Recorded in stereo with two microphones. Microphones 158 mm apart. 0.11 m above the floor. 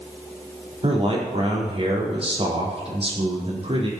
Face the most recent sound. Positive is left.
turn(degrees=-40)  # may be behind; listen again after turning